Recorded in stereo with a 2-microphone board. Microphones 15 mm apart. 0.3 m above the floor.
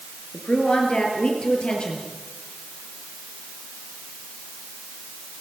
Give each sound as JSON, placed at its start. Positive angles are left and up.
{"t": 0.3, "sound": "a woman speaking", "side_deg": 70, "distance_m": 5.5}